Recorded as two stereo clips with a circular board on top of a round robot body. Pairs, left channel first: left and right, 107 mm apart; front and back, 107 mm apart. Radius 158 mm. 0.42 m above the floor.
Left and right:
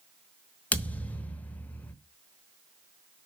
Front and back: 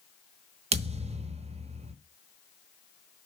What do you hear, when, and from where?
0.7 s a thud: 165° left, 1.1 m